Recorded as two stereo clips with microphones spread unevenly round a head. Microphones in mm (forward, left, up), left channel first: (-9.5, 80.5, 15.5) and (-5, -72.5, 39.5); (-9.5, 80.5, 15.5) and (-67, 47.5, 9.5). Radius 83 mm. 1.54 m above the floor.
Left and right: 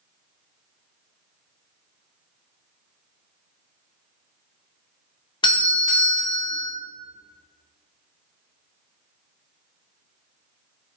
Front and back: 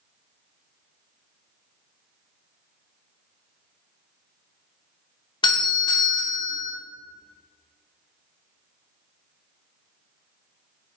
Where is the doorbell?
30° left, 0.8 m.